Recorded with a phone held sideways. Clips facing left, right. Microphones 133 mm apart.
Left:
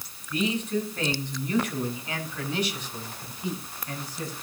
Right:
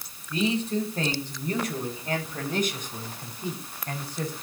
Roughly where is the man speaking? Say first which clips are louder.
Right 1 dB; right.